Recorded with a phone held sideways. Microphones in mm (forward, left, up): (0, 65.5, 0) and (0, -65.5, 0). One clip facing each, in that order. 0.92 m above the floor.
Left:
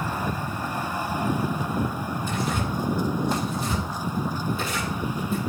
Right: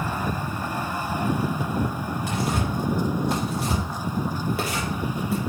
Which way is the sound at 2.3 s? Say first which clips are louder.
Right 2 dB; 80° right.